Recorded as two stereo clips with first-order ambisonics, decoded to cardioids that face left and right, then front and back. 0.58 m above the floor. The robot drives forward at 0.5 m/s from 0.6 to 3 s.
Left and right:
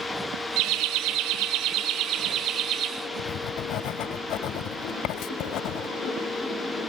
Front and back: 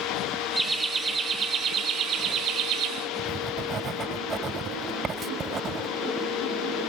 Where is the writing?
115° left, 0.5 m.